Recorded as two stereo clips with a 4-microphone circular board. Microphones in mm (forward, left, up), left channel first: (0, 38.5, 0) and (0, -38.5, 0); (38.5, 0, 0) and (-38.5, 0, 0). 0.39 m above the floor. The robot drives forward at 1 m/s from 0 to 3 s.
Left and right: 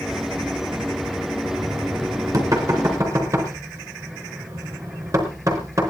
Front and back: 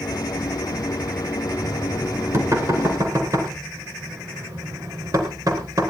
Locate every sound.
1.4 s knocking: 125° right, 4 m; by 5.9 s 140° right, 5 m